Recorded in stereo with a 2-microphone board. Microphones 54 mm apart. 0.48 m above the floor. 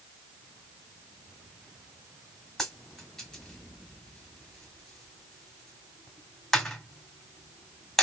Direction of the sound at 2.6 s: 10° left (ahead or behind).